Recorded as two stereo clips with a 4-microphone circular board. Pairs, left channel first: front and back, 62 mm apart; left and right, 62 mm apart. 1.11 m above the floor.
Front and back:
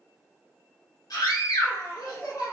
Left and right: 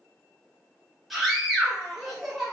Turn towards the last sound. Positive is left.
turn(degrees=0)